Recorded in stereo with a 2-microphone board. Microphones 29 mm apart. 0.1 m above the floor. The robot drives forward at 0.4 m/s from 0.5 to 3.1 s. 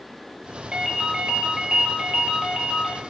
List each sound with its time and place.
0.7 s a ringtone: 30° right (ahead or behind), 0.5 m; by 3.0 s 15° right (ahead or behind), 1.1 m